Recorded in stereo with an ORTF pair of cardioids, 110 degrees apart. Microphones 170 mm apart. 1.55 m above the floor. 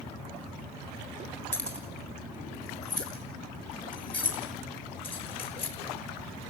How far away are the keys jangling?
About 3.5 m.